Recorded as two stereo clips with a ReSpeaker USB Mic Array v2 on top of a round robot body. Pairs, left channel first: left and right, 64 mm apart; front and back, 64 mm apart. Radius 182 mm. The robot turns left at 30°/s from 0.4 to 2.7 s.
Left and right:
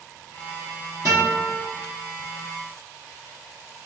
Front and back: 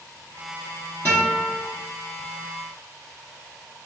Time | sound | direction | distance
1.1 | a guitar | 60° left | 0.5 m